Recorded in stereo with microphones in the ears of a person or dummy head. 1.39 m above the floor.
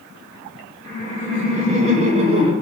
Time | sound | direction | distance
0.8 | laughter | 45° right (ahead or behind) | 1.8 m